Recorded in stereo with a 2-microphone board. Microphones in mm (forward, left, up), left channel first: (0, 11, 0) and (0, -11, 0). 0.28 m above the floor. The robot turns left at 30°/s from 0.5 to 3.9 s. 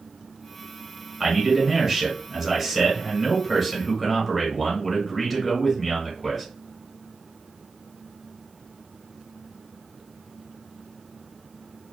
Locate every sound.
1.2 s a man speaking: 15° right (ahead or behind), 1.2 m; by 6.5 s 10° left (ahead or behind), 1.2 m